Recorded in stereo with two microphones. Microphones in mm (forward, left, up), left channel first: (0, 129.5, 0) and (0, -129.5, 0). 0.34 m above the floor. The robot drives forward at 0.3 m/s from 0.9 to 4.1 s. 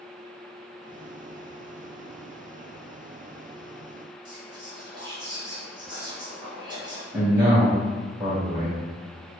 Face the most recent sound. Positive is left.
turn(degrees=-10)  # may be behind; listen again after turning